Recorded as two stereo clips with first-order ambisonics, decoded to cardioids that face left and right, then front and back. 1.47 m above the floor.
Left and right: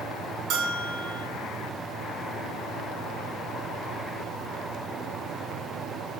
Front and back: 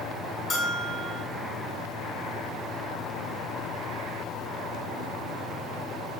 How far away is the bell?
About 0.7 m.